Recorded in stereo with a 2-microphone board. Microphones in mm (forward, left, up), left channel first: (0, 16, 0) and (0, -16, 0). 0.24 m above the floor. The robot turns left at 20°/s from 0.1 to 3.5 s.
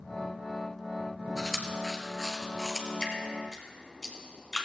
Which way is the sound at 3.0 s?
25° left (ahead or behind).